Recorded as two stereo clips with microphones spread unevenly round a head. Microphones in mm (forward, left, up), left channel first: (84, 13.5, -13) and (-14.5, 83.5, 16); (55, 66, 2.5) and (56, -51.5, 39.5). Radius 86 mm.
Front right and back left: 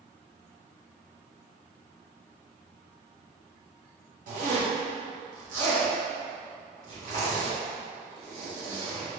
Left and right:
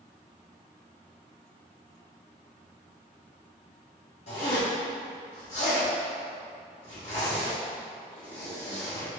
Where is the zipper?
135° left, 1.5 m.